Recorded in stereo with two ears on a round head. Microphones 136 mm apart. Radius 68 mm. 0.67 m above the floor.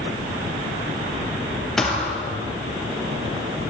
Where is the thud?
5° left (ahead or behind), 4 m.